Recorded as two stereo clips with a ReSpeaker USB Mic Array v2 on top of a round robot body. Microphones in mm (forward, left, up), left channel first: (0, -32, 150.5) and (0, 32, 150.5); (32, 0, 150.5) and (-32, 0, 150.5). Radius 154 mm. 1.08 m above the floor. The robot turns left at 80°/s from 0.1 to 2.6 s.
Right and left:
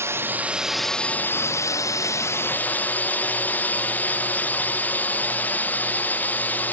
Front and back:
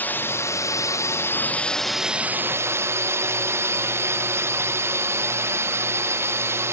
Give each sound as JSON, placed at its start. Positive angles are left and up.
{"t": 0.0, "sound": "a drone", "azimuth_deg": 55}